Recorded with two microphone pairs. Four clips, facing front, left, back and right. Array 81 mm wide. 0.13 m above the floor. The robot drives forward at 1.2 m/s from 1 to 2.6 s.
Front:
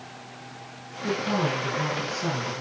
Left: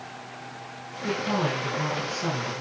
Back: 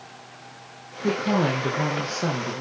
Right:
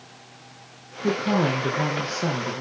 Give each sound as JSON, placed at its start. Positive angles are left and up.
{"t": 1.0, "sound": "a woman speaking", "azimuth_deg": -135, "distance_m": 5.5}